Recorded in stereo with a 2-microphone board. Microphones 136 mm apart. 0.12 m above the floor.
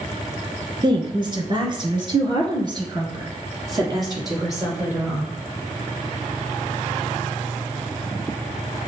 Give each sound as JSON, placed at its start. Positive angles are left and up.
{"t": 0.8, "sound": "a woman speaking", "side_deg": -35, "distance_m": 1.3}